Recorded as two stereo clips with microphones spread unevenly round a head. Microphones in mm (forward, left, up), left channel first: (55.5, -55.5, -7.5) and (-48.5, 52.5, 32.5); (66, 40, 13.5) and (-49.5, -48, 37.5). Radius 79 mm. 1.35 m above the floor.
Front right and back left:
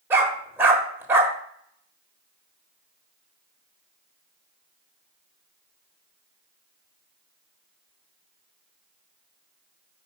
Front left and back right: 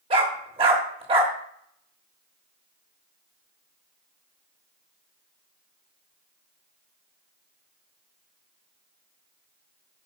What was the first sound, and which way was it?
A dog barking, 170° right.